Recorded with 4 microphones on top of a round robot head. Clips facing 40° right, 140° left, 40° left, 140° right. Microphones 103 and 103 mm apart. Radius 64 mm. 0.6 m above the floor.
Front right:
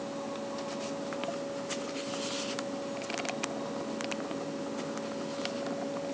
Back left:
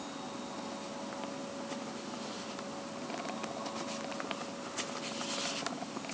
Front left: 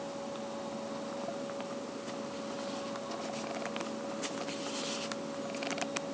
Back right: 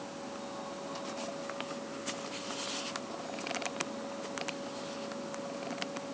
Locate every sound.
Only background noise.